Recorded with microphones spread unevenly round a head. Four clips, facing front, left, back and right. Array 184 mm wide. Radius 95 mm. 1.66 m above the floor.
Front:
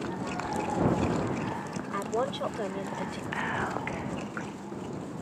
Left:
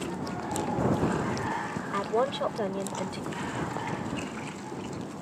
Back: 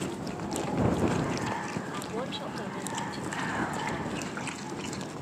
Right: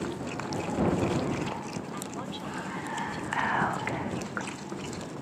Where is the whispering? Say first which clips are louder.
Right 10 dB, front 1 dB; 85° right.